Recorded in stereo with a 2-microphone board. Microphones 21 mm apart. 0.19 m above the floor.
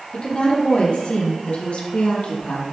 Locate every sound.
0.1 s a woman speaking: 50° left (ahead or behind), 6.5 m; by 2.6 s 70° left (ahead or behind), 5.5 m